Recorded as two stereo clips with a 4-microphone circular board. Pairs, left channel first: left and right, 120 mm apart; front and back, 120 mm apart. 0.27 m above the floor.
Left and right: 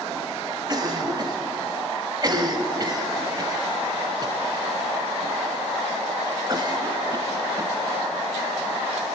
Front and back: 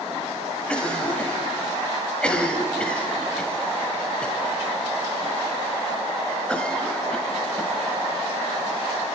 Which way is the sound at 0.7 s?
75° right.